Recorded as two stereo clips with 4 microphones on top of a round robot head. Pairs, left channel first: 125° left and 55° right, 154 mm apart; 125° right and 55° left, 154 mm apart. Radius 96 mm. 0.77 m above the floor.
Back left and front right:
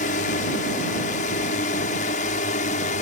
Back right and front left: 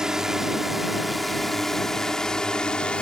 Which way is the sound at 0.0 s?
140° left.